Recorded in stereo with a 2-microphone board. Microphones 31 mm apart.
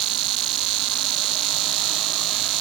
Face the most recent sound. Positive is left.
No sound to turn to.